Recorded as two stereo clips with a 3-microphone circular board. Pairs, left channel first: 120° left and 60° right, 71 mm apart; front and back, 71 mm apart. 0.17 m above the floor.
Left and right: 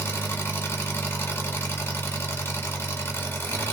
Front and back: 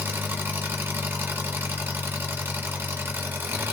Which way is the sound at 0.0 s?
145° left.